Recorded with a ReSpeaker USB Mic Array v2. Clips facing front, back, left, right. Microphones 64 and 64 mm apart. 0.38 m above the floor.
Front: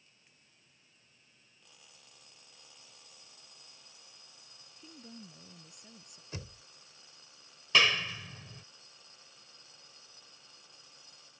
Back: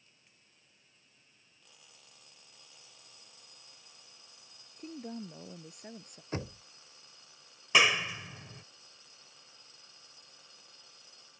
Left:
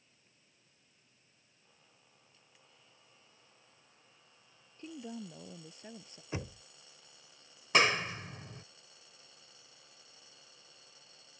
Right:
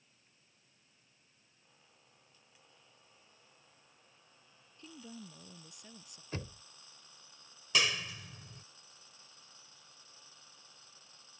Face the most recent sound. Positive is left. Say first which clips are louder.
# back 1 dB, left 5 dB
turn(degrees=110)